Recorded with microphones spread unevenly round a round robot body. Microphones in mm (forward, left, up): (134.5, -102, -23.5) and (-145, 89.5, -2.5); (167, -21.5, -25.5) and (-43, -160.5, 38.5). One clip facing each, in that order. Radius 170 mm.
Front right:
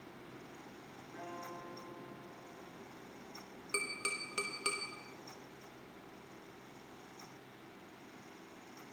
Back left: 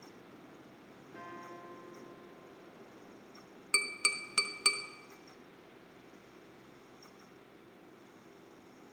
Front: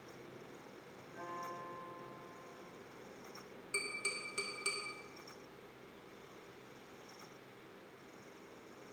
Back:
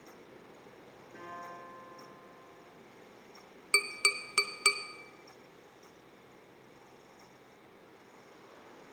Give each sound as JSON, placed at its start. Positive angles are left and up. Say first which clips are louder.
{"t": 1.1, "sound": "a guitar", "louder": "front right 2 dB, even", "azimuth_deg": -130, "distance_m": 6.0}
{"t": 3.7, "sound": "tapping", "louder": "front right 1 dB, back 7 dB", "azimuth_deg": -150, "distance_m": 0.8}